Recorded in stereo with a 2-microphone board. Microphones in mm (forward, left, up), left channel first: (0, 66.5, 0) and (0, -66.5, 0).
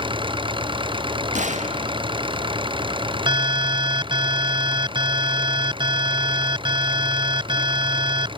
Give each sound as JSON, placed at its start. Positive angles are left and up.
{"t": 0.0, "sound": "an engine running", "side_deg": -40}
{"t": 1.4, "sound": "a gunshot", "side_deg": -65}
{"t": 3.3, "sound": "an alarm", "side_deg": -35}